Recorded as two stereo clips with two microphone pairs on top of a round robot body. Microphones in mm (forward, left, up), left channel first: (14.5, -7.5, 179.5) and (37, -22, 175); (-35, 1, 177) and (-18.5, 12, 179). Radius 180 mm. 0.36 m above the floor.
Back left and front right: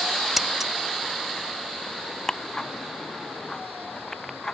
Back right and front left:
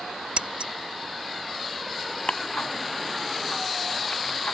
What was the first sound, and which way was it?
Scissors, 40° left.